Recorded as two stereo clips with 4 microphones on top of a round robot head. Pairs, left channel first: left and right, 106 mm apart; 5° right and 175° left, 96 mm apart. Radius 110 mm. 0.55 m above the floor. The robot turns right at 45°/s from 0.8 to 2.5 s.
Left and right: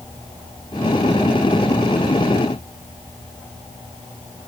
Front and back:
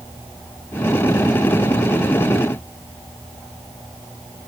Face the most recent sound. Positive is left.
No sound to turn to.